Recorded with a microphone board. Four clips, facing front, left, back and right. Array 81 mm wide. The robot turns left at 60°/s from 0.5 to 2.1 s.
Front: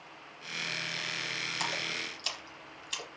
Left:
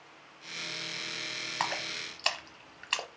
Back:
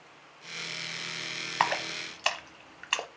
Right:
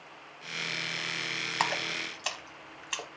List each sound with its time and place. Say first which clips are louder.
1.6 s a splash: right 3 dB, back 11 dB; 165° right, 0.8 m; by 3.1 s 165° left, 0.8 m